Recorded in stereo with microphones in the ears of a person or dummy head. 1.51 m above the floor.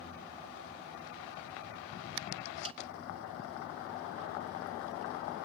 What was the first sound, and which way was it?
A snare drum, 30° right (ahead or behind).